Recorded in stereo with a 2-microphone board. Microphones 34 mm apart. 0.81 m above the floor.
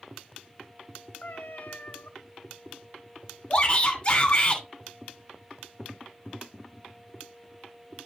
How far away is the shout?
About 2.5 m.